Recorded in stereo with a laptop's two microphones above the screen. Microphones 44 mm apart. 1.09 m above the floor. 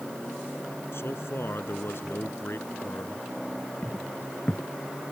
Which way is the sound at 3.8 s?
45° left (ahead or behind).